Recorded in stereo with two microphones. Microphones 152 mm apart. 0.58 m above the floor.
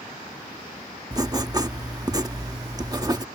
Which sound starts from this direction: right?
Writing, at 1.1 s.